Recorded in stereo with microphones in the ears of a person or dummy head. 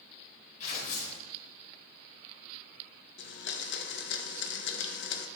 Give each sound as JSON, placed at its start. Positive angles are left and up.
{"t": 0.6, "sound": "tearing paper", "side_deg": 40, "distance_m": 1.9}
{"t": 3.2, "sound": "a blender", "side_deg": 55, "distance_m": 0.6}